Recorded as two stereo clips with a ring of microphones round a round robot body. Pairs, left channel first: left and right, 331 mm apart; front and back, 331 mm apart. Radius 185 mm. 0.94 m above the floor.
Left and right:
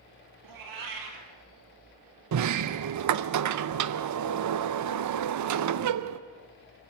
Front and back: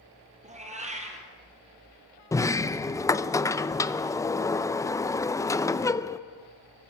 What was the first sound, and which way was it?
A cat meowing, 110° right.